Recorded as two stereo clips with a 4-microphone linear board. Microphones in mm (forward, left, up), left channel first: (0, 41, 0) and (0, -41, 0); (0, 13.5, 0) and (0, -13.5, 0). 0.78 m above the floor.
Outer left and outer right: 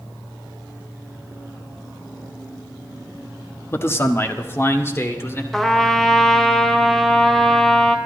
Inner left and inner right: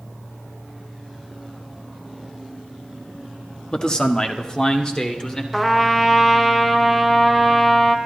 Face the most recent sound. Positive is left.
turn(degrees=5)  # may be behind; listen again after turning